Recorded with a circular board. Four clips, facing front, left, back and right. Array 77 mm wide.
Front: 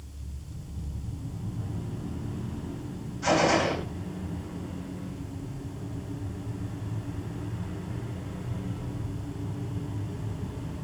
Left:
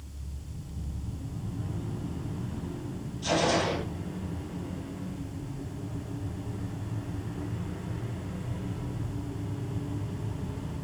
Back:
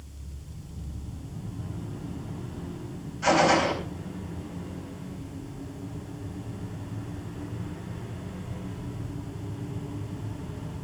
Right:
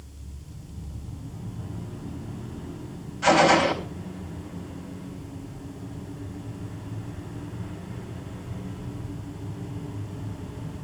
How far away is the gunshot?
About 4 m.